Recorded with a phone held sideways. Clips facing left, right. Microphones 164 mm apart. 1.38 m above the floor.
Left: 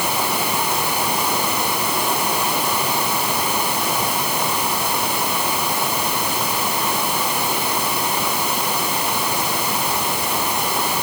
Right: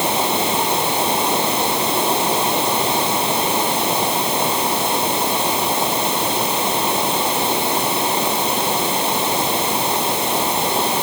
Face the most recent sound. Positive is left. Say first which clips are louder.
# right 3 dB
turn(degrees=-25)  # may be behind; listen again after turning